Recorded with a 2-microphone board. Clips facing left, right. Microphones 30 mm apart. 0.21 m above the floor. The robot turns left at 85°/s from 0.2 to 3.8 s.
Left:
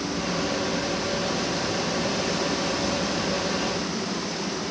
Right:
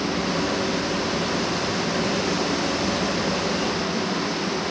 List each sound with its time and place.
Only background noise.